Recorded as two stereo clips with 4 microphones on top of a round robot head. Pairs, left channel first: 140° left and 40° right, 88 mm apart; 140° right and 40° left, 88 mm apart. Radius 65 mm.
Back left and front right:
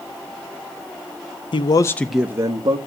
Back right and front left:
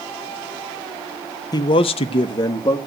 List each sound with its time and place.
1.5 s a man speaking: 170° left, 0.9 m; by 2.8 s 85° right, 1.4 m